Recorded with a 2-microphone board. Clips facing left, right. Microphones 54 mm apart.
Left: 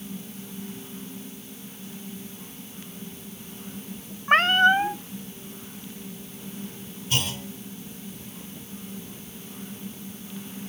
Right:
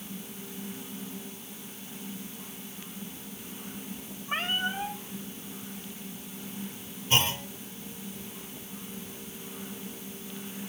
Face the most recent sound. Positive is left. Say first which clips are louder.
# right 2 dB
turn(degrees=-30)  # may be behind; listen again after turning